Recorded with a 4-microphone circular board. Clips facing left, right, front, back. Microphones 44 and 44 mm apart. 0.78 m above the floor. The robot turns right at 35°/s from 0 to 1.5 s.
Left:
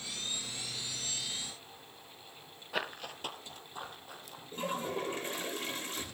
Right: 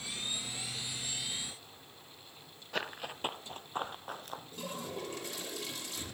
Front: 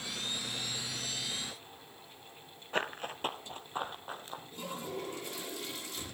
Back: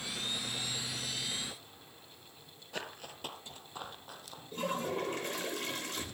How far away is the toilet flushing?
About 3.5 m.